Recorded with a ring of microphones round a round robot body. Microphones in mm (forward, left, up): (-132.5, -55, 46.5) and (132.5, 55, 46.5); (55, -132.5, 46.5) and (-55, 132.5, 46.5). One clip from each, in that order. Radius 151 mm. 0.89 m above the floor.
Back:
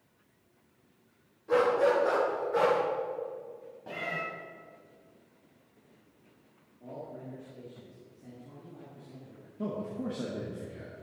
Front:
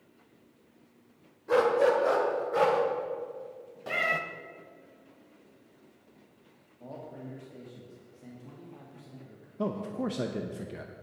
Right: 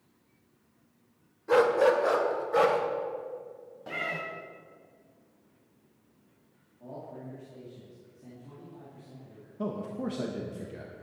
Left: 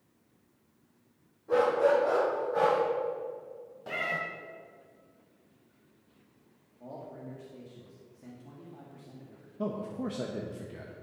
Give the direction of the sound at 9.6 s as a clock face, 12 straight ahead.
11 o'clock.